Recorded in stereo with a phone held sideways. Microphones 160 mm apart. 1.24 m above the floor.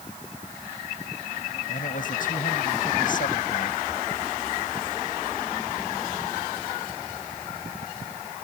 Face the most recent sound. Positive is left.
turn(degrees=60)  # may be behind; listen again after turning